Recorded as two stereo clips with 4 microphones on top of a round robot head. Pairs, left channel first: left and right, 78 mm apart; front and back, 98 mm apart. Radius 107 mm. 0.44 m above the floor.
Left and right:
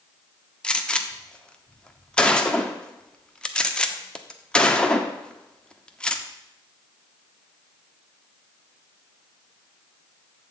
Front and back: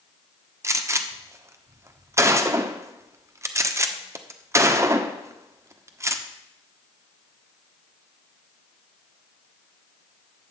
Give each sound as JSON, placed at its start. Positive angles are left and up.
{"t": 0.6, "sound": "a gunshot", "azimuth_deg": 155, "distance_m": 1.2}